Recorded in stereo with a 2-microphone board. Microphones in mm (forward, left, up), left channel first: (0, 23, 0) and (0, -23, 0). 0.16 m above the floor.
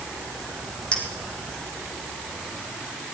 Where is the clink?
25° left (ahead or behind), 4 m.